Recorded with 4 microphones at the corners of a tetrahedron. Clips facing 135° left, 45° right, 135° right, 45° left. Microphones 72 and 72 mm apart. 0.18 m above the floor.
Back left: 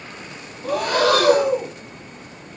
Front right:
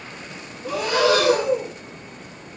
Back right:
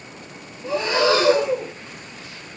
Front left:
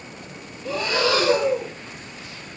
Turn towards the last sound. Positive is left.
turn(degrees=170)